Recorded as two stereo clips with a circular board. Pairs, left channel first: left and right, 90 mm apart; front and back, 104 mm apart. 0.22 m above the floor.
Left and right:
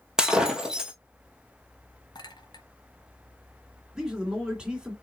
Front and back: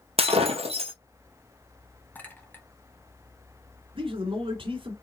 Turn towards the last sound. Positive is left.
turn(degrees=-170)